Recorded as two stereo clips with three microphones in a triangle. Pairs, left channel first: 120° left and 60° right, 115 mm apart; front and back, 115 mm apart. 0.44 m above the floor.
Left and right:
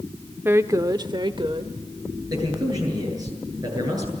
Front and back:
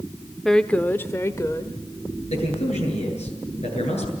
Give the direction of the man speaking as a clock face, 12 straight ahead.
12 o'clock.